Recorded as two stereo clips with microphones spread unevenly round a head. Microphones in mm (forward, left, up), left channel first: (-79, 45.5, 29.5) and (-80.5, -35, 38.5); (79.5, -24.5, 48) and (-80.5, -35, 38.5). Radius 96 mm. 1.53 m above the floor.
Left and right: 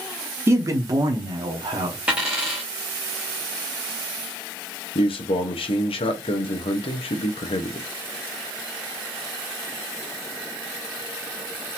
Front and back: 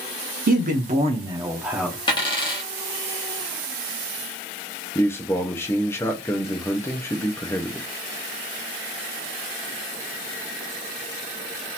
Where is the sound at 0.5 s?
150° right, 1.0 m; by 2.0 s 80° right, 0.8 m.